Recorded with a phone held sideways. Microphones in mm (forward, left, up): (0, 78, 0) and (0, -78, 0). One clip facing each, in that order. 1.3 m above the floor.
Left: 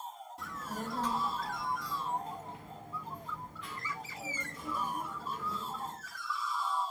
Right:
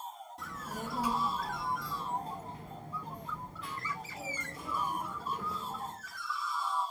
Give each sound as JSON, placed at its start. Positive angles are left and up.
{"t": 0.4, "sound": "a child speaking", "side_deg": 0, "distance_m": 0.9}